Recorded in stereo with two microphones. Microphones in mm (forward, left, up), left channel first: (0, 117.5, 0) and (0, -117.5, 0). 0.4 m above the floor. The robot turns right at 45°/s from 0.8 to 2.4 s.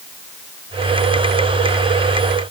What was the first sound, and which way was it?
Only background noise.